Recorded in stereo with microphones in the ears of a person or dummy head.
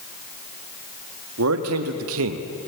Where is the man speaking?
75° right (ahead or behind), 2 m; by 2.5 s 70° right (ahead or behind), 1.5 m.